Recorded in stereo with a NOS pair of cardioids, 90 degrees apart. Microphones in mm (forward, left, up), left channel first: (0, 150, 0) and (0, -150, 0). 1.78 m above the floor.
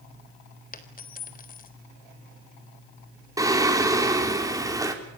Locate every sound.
0.7 s a dropped coin: 30° left, 3.5 m
3.4 s singing: 10° right, 4.5 m